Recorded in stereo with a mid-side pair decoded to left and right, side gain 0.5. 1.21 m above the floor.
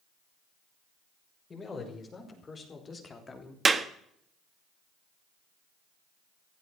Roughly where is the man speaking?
Ahead left.